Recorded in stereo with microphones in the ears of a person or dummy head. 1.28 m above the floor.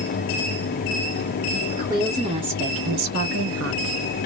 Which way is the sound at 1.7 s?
15° right (ahead or behind).